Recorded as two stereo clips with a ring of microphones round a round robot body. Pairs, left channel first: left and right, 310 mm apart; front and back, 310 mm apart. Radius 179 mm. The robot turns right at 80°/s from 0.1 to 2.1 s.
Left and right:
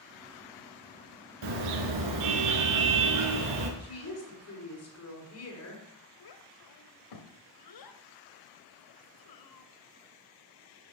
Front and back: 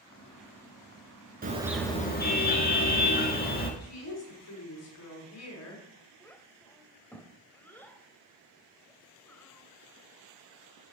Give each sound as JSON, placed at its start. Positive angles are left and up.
{"t": 1.4, "sound": "a car horn", "azimuth_deg": -115, "distance_m": 3.5}
{"t": 3.8, "sound": "a woman speaking", "azimuth_deg": 45, "distance_m": 7.0}
{"t": 6.2, "sound": "a child speaking", "azimuth_deg": 85, "distance_m": 2.0}